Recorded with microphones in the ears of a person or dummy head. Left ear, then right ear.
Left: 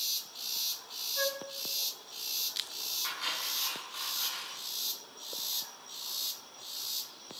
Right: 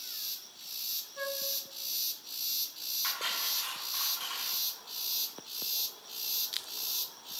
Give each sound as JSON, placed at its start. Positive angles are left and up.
{"t": 1.2, "sound": "a flute", "side_deg": 10, "distance_m": 2.0}
{"t": 3.0, "sound": "cutlery clinking", "side_deg": -20, "distance_m": 6.5}